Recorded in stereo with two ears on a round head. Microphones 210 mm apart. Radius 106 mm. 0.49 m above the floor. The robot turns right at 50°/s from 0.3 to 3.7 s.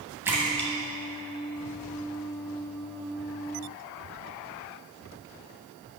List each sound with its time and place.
0.2 s a splash: 10° right (ahead or behind), 1.3 m; by 2.1 s 80° left, 1.3 m